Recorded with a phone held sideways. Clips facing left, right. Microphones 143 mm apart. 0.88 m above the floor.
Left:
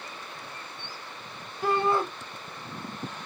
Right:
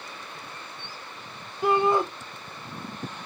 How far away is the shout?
About 0.6 m.